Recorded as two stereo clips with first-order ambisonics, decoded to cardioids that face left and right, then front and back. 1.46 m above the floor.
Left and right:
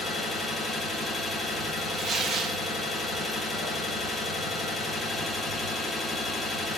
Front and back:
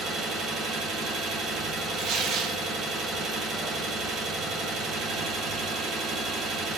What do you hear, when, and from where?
0.0 s an engine running: 165° left, 1.1 m
2.0 s tearing paper: 145° right, 0.6 m